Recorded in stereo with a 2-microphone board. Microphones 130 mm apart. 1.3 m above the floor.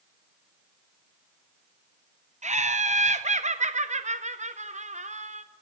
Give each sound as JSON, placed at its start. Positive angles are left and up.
{"t": 2.4, "sound": "laughter", "side_deg": -65, "distance_m": 0.7}